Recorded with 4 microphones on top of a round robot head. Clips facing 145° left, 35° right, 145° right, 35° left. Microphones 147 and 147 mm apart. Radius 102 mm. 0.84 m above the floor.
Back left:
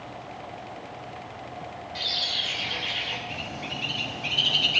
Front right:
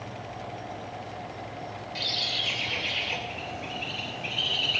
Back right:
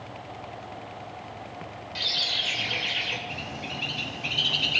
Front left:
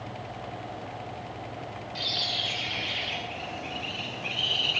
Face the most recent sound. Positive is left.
turn(degrees=-160)